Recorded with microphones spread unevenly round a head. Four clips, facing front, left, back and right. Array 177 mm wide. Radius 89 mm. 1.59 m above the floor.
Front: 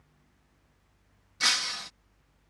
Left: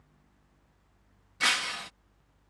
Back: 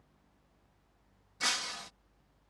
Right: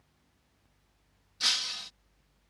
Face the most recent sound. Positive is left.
turn(degrees=70)